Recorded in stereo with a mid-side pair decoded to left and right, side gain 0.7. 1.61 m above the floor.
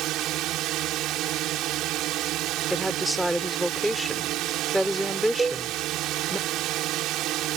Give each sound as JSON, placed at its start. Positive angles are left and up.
{"t": 0.0, "sound": "a drone", "azimuth_deg": -55}
{"t": 2.7, "sound": "a woman speaking", "azimuth_deg": -5}
{"t": 5.4, "sound": "a cowbell", "azimuth_deg": -20}